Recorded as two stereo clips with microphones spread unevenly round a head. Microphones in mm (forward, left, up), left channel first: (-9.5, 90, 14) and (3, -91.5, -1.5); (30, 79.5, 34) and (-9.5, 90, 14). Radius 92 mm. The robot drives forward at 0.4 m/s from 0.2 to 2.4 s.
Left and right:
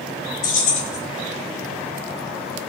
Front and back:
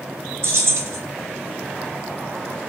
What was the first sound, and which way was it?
Keys jangling, 135° left.